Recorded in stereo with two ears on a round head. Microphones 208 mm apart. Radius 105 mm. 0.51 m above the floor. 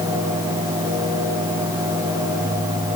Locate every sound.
Only background noise.